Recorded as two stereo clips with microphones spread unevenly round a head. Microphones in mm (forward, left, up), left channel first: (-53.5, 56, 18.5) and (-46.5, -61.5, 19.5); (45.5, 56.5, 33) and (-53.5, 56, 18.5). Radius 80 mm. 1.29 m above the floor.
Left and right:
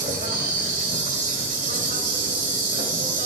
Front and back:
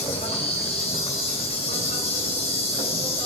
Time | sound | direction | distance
0.0 | an insect | 50° right | 2.5 m